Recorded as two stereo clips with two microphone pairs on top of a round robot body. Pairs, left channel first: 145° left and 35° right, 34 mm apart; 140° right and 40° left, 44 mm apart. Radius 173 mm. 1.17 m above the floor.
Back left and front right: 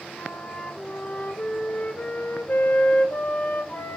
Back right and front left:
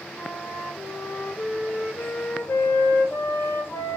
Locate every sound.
0.2 s a flute: 175° left, 1.6 m